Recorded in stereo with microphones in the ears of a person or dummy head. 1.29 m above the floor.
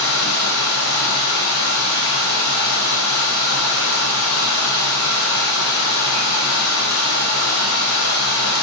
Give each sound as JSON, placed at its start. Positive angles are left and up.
{"t": 0.0, "sound": "running water", "side_deg": 80, "distance_m": 0.9}